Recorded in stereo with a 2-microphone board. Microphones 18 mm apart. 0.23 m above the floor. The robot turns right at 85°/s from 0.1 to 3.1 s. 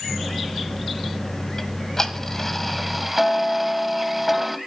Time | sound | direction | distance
1.6 | ticking | 30° left (ahead or behind) | 1.4 m